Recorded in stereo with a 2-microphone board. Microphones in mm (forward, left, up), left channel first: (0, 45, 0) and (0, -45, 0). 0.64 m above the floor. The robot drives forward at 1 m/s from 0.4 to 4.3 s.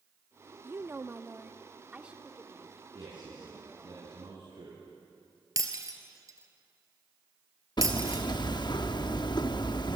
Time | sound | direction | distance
0.6 | a woman speaking | 25° right (ahead or behind) | 0.8 m
3.0 | a man speaking | 60° right (ahead or behind) | 7 m
5.6 | breaking glass | 40° right (ahead or behind) | 1.9 m
7.8 | hammering | 55° left (ahead or behind) | 0.7 m